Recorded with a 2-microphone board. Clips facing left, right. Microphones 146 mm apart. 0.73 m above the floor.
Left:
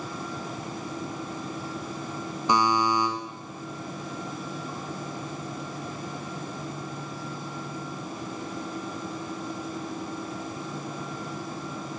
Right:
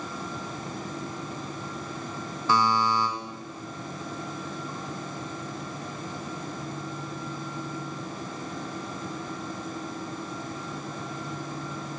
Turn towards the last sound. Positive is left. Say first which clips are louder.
# left 1 dB
turn(degrees=15)  # may be behind; listen again after turning